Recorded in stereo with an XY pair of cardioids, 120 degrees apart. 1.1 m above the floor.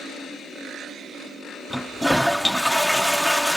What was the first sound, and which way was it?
A toilet flushing, straight ahead.